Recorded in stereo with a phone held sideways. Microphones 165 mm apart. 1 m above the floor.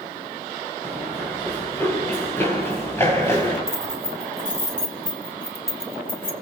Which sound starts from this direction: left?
Keys jangling, at 3.7 s.